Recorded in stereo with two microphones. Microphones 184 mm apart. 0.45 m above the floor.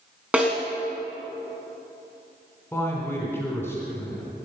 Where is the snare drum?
5° right (ahead or behind), 3.5 m.